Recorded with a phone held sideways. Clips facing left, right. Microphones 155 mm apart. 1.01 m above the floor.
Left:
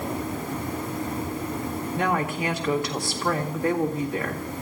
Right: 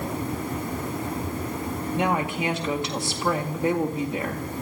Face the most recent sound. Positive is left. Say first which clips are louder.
# right 1 dB
turn(degrees=-20)  # may be behind; listen again after turning